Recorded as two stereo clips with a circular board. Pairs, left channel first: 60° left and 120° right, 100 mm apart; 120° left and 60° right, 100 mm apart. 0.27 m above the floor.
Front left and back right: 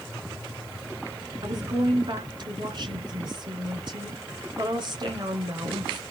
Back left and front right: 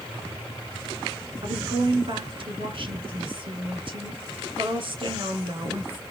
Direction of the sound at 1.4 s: 85° right.